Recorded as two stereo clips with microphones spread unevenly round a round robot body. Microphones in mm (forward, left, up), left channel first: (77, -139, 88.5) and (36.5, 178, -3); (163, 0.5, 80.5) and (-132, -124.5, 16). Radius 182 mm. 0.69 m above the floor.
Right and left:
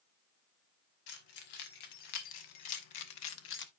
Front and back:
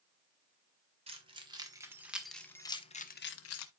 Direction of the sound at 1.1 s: 85° right.